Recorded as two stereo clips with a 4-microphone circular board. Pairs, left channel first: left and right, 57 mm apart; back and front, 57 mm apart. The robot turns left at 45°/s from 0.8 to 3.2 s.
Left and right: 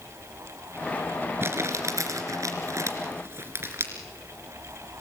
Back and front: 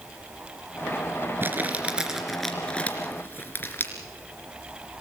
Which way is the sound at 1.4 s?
50° right.